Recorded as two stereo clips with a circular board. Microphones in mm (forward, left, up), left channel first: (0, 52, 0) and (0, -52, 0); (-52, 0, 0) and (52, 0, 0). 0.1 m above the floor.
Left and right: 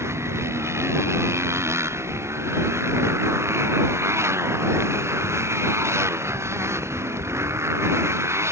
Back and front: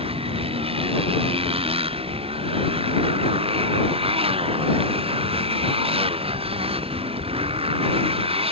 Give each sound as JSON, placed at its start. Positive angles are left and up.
{"t": 0.0, "sound": "a motorcycle", "azimuth_deg": -25}